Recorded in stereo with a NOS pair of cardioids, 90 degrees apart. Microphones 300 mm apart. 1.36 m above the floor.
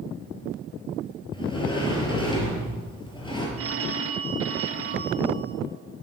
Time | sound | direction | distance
1.3 | a sliding door | 15° left | 5 m
3.6 | a phone ringing | 50° right | 1.4 m